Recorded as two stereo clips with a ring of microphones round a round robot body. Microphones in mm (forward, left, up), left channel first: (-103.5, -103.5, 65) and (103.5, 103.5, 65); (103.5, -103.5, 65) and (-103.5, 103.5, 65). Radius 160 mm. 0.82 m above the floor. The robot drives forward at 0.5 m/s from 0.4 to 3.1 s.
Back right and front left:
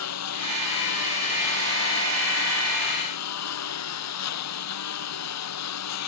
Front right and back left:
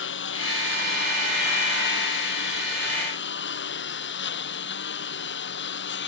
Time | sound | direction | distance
0.0 | a lawn mower | 95° right | ?